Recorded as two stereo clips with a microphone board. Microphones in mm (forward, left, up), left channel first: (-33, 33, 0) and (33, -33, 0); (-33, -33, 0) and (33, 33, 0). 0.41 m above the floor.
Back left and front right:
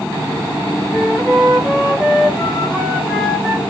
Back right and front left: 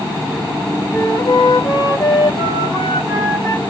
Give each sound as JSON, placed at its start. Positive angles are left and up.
{"t": 0.9, "sound": "a flute", "azimuth_deg": -130, "distance_m": 1.3}